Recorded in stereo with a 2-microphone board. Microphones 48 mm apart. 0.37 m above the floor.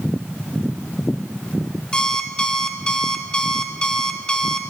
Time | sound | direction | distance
1.9 | an alarm clock | 15° left (ahead or behind) | 1.3 m